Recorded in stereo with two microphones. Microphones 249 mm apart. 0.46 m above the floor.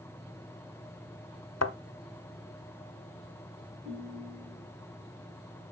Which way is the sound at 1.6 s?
75° left (ahead or behind).